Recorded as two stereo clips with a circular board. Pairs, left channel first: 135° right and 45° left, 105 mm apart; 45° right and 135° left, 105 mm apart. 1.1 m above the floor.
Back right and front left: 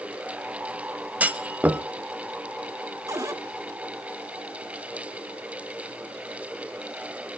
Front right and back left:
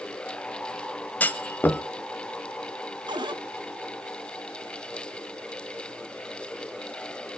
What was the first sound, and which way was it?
A clunk, 5° right.